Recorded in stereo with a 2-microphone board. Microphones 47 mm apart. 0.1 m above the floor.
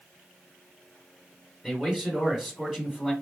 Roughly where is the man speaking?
Centre.